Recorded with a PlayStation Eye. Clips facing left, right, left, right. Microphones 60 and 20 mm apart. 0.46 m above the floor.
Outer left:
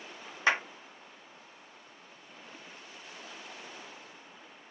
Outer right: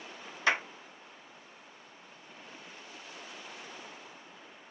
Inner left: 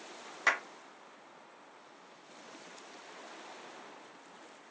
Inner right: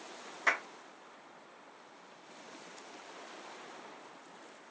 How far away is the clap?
About 1.4 m.